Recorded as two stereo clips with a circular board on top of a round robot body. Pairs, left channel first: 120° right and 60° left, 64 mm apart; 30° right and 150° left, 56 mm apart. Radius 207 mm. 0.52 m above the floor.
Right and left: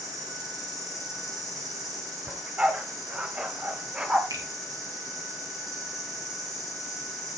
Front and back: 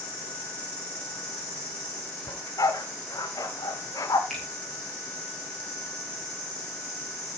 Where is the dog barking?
15° right, 0.7 m.